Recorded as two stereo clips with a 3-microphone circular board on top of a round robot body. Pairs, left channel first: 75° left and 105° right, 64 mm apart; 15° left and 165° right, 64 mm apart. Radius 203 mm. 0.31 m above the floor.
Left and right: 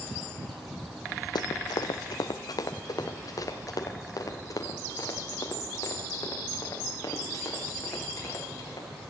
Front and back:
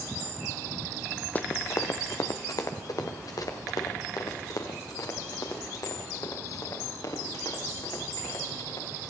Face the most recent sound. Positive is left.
turn(degrees=35)